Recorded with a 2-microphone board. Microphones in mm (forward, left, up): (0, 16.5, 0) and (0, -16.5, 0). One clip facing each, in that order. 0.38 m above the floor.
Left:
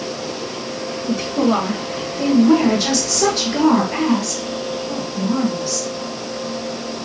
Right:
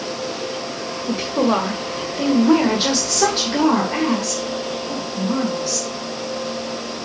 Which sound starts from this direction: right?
A woman speaking, at 1.1 s.